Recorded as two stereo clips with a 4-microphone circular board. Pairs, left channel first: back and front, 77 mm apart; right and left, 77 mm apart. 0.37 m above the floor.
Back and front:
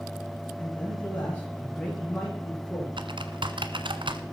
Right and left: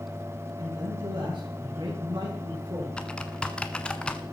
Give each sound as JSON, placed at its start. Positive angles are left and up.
{"t": 0.6, "sound": "a man speaking", "azimuth_deg": 110, "distance_m": 7.0}
{"t": 3.0, "sound": "typing on a keyboard", "azimuth_deg": -10, "distance_m": 1.1}